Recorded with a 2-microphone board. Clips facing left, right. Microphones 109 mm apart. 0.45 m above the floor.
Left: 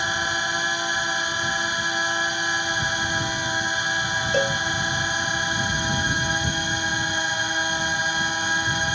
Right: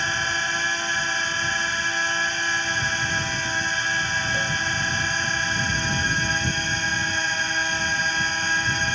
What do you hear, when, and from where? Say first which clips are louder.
0.0 s a drone: left 1 dB; 15° left (ahead or behind)
4.3 s a cowbell: left 5 dB; 60° left (ahead or behind)